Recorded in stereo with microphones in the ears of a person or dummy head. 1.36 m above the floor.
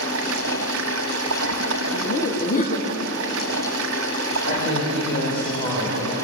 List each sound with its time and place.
0.0 s running water: 80° right, 1.4 m
1.9 s laughter: 40° left (ahead or behind), 2.5 m
4.5 s a woman speaking: 30° left (ahead or behind), 5.5 m